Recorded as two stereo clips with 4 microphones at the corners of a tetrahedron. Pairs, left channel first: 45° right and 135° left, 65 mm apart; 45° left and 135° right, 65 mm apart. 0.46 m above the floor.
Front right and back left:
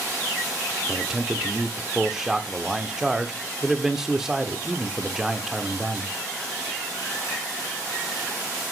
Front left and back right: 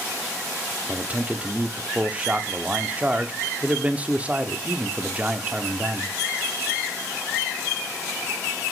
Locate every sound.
0.9 s a man speaking: 155° right, 0.7 m